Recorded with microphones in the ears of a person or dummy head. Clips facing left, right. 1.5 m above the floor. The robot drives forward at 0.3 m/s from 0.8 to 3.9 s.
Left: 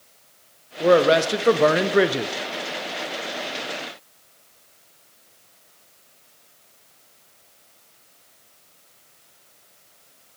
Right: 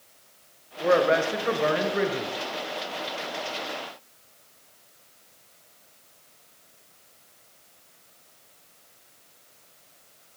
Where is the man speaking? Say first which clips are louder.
Left 5 dB; 40° left (ahead or behind), 0.7 m; by 2.3 s 65° left (ahead or behind), 0.5 m.